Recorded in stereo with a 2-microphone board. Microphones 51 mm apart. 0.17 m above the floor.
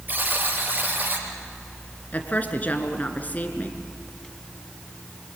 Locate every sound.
0.1 s a buzzer: 35° right (ahead or behind), 4.5 m
2.1 s a woman speaking: 30° left (ahead or behind), 2.5 m